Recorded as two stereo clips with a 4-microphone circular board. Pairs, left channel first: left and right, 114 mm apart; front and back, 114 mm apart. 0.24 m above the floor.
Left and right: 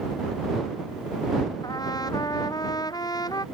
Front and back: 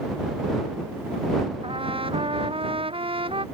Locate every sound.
1.6 s a trumpet: 145° left